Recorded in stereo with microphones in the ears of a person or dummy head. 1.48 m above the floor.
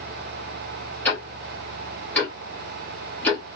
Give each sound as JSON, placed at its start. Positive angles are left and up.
{"t": 1.1, "sound": "ticking", "side_deg": 10, "distance_m": 1.1}